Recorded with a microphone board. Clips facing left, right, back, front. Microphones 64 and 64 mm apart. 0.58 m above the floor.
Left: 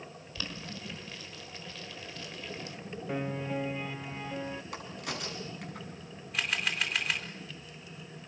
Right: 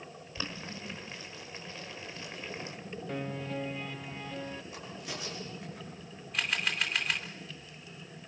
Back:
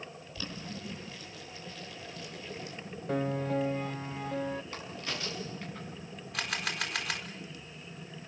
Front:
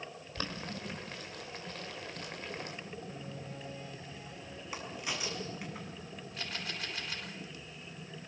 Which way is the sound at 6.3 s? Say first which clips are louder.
Even, back 7 dB; straight behind.